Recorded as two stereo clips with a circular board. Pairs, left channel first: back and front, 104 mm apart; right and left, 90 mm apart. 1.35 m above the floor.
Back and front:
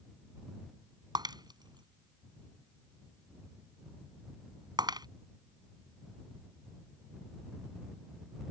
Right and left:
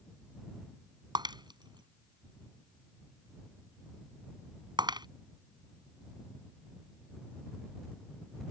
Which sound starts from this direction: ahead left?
Breaking glass, at 1.1 s.